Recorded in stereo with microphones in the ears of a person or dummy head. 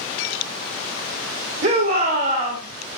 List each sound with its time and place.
1.6 s a shout: 40° right (ahead or behind), 2 m; by 2.6 s 45° right (ahead or behind), 3 m